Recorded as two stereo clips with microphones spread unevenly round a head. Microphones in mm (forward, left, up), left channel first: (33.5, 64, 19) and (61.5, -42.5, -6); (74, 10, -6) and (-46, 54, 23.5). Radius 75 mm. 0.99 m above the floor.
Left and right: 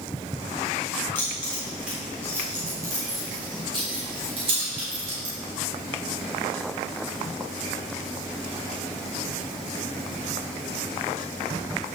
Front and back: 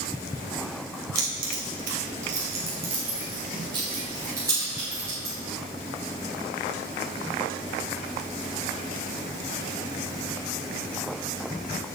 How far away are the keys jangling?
About 1.3 m.